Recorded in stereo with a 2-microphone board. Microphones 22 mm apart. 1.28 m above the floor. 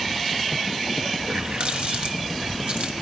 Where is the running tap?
60° right (ahead or behind), 1.2 m.